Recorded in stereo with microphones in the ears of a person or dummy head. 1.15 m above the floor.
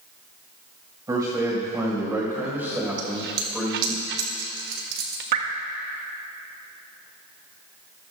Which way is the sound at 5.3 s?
50° right (ahead or behind).